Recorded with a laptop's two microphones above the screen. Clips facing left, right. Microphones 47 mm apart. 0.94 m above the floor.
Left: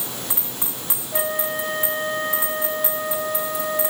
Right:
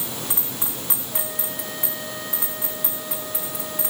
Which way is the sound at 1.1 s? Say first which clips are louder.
Left 12 dB; 40° left (ahead or behind).